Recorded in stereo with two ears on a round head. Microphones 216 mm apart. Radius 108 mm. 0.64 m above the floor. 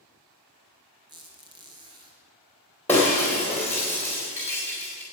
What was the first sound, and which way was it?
A squeak, 20° right (ahead or behind).